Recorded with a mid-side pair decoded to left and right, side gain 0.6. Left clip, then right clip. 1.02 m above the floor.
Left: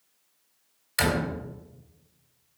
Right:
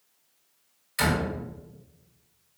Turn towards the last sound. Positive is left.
turn(degrees=45)